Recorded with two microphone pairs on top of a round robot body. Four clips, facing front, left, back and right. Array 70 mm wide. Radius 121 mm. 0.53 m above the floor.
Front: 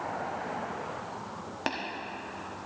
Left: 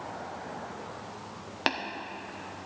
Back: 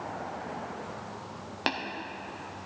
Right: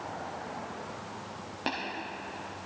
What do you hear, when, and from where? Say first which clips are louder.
1.7 s tapping: left 4 dB, back 2 dB; 85° left, 1.5 m